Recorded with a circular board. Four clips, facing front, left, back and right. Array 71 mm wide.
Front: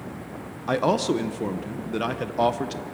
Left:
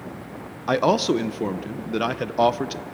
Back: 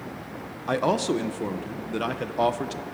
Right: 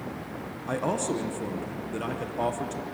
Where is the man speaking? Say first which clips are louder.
Left 9 dB, front 1 dB; 85° left, 0.7 m.